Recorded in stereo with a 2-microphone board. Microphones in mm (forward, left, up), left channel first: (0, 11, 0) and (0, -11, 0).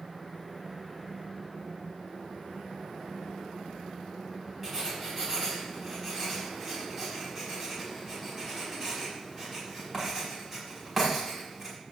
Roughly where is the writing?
Centre.